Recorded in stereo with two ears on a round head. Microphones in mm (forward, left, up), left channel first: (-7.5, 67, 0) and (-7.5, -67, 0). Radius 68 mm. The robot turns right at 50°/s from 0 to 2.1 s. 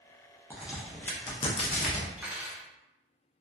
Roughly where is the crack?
Centre.